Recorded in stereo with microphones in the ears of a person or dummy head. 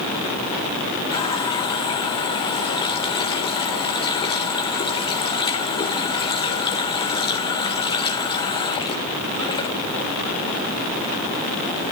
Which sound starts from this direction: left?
A running tap, at 1.1 s.